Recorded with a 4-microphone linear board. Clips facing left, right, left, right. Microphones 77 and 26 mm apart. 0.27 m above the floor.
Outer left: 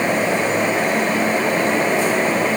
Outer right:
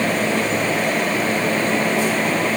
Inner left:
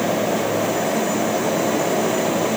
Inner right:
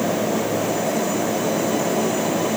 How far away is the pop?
No pop in this recording.